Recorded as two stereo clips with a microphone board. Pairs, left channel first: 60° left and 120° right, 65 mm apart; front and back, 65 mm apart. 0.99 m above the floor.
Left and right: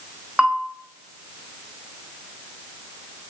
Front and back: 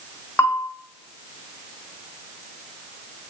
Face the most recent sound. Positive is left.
turn(degrees=-45)